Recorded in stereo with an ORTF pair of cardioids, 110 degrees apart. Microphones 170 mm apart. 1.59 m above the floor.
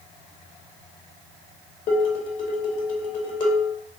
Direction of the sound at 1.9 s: 50° left.